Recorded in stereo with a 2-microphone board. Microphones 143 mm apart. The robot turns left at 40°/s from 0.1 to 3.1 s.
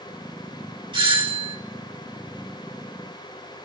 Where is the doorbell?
35° right (ahead or behind), 3 m; by 1.6 s 45° right (ahead or behind), 3 m.